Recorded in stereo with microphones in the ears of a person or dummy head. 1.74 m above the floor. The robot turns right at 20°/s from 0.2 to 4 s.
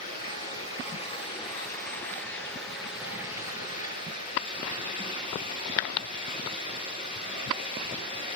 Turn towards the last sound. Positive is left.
turn(degrees=-155)